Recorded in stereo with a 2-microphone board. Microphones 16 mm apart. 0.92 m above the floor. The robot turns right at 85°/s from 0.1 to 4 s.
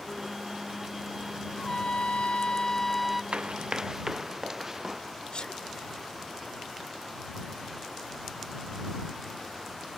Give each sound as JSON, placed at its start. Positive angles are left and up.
{"t": 1.6, "sound": "a trumpet", "azimuth_deg": 45}
{"t": 3.3, "sound": "running footsteps", "side_deg": -80}
{"t": 5.3, "sound": "a sneeze", "side_deg": 70}